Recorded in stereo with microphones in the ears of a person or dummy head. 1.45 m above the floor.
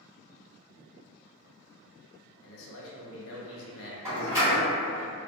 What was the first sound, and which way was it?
A man speaking, 80° left.